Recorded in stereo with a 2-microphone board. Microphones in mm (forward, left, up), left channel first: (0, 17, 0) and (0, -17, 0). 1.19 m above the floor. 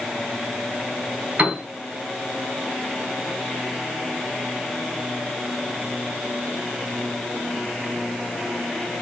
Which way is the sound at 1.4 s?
40° right (ahead or behind).